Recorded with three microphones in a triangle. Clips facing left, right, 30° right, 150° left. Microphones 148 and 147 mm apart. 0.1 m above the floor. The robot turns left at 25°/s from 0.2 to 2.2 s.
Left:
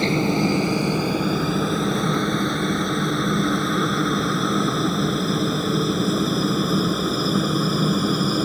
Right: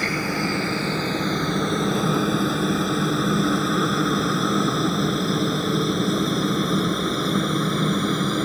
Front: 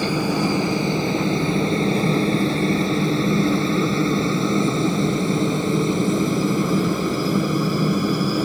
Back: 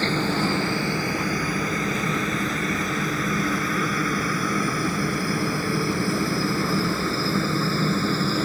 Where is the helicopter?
40° left; by 8.4 s 15° left.